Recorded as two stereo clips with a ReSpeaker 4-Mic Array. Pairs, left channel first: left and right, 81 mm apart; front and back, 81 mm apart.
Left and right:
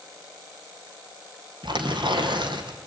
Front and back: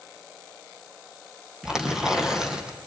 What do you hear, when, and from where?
1.6 s tearing paper: 100° right, 3 m